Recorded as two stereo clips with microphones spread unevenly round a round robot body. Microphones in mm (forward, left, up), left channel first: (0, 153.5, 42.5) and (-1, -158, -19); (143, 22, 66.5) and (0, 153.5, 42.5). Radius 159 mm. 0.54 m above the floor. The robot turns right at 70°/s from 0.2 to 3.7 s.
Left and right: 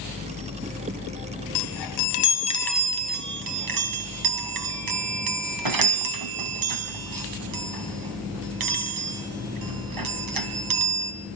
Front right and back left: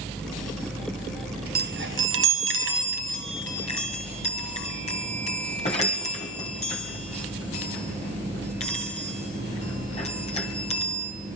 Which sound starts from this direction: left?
A chime, at 1.6 s.